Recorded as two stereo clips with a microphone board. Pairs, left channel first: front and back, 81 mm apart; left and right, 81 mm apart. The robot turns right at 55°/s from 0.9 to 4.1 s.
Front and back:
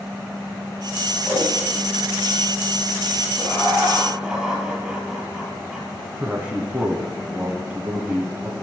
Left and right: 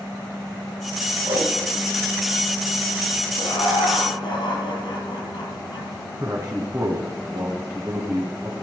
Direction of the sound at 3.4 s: 55° left.